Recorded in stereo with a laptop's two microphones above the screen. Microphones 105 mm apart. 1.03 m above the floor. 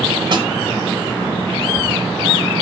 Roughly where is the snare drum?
Right.